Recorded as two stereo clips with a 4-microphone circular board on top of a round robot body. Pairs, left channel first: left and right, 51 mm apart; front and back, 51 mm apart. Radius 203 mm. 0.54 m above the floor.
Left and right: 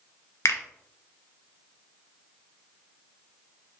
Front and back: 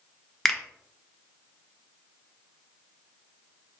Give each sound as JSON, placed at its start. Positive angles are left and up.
{"t": 0.5, "sound": "a finger snap", "azimuth_deg": 85, "distance_m": 0.6}